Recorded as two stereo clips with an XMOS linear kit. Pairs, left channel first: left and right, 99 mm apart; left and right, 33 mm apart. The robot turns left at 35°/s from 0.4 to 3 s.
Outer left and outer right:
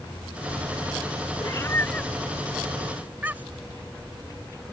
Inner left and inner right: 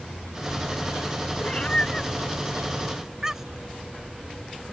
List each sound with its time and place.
1.4 s a cat meowing: 35° left (ahead or behind); by 3.7 s 15° right (ahead or behind)